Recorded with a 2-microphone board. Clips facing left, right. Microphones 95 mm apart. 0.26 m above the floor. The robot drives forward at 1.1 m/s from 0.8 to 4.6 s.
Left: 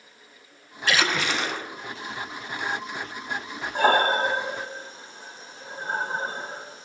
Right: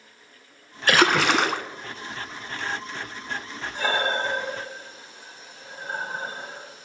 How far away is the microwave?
I don't hear a microwave.